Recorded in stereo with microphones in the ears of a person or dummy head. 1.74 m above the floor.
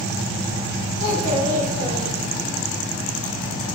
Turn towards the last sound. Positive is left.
turn(degrees=50)  # may be behind; listen again after turning